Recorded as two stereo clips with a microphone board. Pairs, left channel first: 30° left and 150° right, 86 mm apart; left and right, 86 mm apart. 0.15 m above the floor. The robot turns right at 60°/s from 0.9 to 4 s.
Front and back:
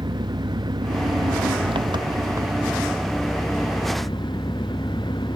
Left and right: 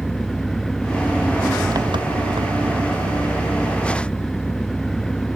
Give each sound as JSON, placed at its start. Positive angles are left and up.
{"t": 0.0, "sound": "an engine running", "azimuth_deg": 180}